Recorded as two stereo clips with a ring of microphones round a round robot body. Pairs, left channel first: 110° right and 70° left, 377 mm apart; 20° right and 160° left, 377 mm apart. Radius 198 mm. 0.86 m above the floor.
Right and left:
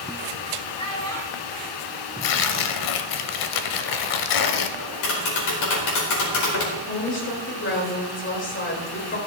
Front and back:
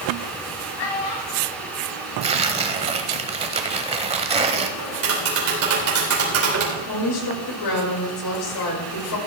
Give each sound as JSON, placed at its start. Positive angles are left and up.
{"t": 0.8, "sound": "a child speaking", "azimuth_deg": -35, "distance_m": 4.0}
{"t": 2.2, "sound": "tearing paper", "azimuth_deg": -130, "distance_m": 0.9}
{"t": 4.8, "sound": "tapping", "azimuth_deg": -150, "distance_m": 4.5}
{"t": 6.8, "sound": "a woman speaking", "azimuth_deg": -55, "distance_m": 4.5}